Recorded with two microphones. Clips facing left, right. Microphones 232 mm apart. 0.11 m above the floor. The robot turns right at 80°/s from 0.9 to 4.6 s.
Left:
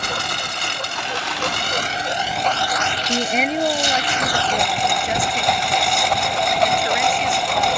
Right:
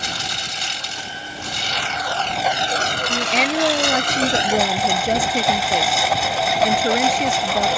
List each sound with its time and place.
0.0 s a lawn mower: 60° left; by 7.8 s straight ahead
3.1 s a woman speaking: 150° left; by 7.7 s 90° right